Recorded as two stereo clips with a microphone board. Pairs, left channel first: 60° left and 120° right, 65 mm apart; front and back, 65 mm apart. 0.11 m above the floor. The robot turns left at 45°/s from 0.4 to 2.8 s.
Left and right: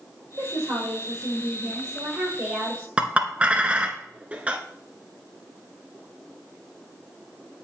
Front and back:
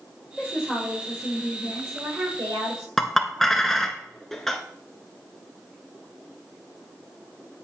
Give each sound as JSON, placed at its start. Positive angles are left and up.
{"t": 0.4, "sound": "a woman speaking", "azimuth_deg": -95, "distance_m": 3.0}
{"t": 3.0, "sound": "a clink", "azimuth_deg": -80, "distance_m": 0.7}